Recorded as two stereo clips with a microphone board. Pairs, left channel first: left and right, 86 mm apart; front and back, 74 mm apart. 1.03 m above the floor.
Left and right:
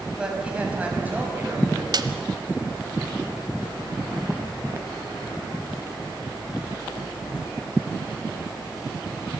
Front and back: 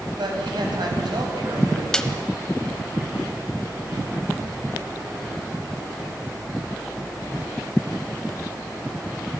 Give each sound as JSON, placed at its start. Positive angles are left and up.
{"t": 0.2, "sound": "a man speaking", "azimuth_deg": -170, "distance_m": 6.0}
{"t": 1.9, "sound": "a snare drum", "azimuth_deg": -80, "distance_m": 1.2}